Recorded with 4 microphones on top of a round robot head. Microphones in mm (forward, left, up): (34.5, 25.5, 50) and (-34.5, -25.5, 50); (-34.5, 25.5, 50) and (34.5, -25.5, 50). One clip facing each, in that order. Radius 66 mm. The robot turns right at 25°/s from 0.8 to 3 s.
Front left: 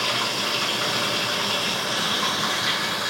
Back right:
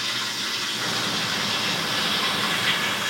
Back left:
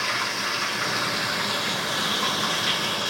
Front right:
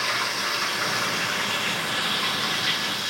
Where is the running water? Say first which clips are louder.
Front left 5 dB, even; 55° left, 1.4 m; by 3.1 s 110° left, 1.4 m.